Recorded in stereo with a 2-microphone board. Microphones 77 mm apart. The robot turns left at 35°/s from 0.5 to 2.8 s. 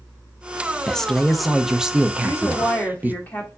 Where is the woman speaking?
40° left (ahead or behind), 1.6 m; by 3.5 s 20° left (ahead or behind), 1.6 m.